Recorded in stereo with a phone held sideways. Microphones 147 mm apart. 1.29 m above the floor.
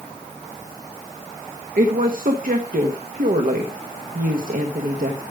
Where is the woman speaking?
65° right (ahead or behind), 1.5 m.